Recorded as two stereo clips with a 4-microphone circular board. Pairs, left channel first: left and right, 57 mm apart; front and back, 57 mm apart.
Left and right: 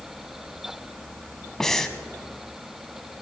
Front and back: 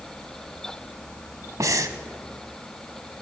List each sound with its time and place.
1.6 s breathing: 170° left, 0.6 m